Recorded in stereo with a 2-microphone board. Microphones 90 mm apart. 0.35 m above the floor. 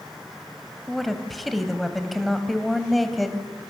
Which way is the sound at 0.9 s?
Centre (ahead or behind).